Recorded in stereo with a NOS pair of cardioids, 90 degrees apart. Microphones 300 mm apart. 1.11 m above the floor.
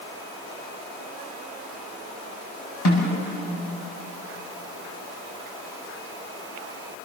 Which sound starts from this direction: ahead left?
A snare drum, at 2.9 s.